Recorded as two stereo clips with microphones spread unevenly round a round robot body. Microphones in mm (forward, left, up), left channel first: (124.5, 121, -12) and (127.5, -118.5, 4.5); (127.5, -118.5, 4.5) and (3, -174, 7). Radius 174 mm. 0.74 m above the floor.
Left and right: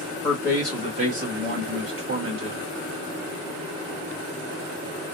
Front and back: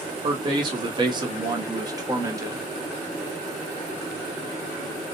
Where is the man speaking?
175° left, 1.1 m; by 2.6 s 90° right, 1.6 m.